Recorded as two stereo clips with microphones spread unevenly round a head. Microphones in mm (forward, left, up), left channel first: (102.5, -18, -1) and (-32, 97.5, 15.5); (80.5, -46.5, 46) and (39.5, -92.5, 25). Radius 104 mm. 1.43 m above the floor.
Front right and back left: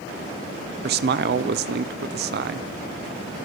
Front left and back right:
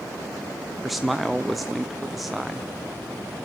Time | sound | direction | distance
0.8 | a man speaking | 155° left | 0.6 m